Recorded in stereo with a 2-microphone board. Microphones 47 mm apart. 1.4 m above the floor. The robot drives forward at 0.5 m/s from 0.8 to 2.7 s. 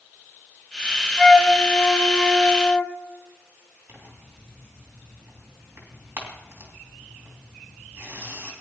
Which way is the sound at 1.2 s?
Centre (ahead or behind).